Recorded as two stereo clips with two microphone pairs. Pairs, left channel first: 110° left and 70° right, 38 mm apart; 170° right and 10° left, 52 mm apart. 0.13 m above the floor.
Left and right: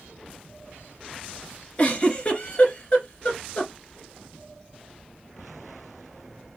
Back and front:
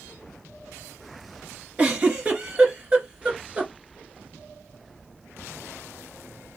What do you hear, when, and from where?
1.8 s a giggle: 70° left, 2.5 m